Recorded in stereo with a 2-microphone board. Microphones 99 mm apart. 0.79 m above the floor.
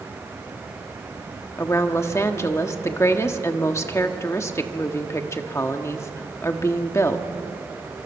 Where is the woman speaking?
30° left (ahead or behind), 1.4 m.